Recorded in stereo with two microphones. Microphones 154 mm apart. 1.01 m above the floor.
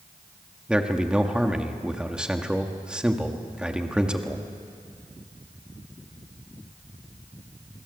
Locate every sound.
0.7 s a man speaking: 5° right (ahead or behind), 1.8 m